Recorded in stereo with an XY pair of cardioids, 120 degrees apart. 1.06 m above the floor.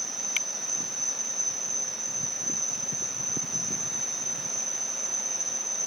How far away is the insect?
About 2.5 m.